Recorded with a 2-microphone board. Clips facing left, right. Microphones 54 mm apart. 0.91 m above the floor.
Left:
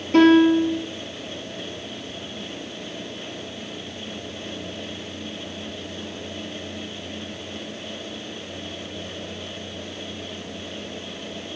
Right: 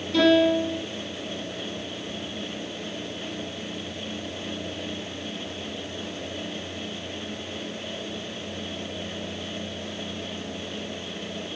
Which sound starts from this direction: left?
A piano, at 0.1 s.